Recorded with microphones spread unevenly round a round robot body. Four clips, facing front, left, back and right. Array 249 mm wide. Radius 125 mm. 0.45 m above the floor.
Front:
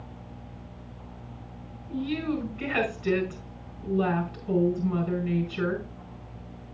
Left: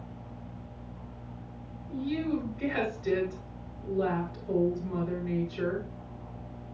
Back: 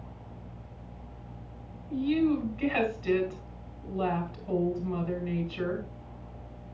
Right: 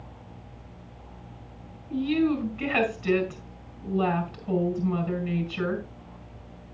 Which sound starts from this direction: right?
A woman speaking, at 1.9 s.